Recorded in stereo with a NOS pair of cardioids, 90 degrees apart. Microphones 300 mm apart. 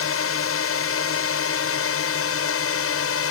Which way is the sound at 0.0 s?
50° left.